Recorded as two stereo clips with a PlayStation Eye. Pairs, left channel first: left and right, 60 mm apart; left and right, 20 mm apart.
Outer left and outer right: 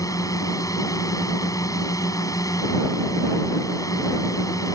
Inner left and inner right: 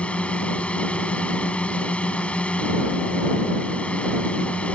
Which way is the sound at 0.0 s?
80° left.